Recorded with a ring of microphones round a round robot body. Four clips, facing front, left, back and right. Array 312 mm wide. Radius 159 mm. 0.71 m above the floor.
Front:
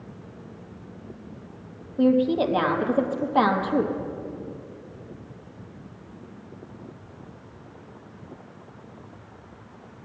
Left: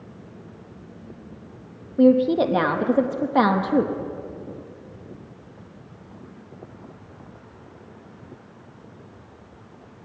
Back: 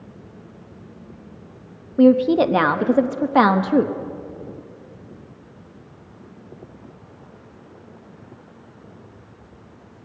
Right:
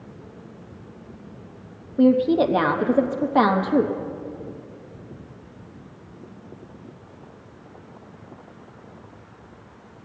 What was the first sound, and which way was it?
A woman speaking, straight behind.